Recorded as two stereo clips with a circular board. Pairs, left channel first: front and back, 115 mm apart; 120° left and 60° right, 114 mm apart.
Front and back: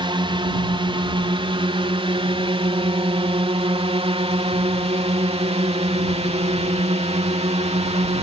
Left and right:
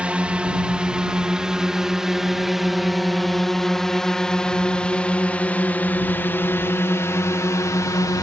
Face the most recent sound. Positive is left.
turn(degrees=175)